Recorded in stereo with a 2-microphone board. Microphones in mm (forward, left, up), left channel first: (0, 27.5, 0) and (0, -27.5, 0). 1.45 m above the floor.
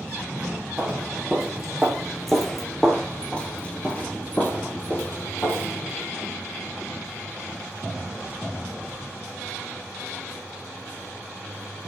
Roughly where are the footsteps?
Centre.